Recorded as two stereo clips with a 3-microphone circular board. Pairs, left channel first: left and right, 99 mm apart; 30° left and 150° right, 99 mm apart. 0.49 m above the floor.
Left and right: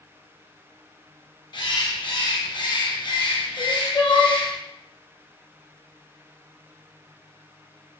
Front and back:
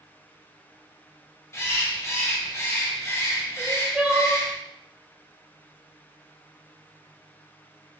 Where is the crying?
135° left, 0.7 m.